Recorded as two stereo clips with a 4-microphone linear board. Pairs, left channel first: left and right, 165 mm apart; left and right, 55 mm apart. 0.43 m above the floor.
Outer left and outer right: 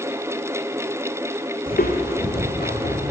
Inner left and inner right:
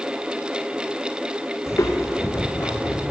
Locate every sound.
1.7 s footsteps: 60° left (ahead or behind), 1.0 m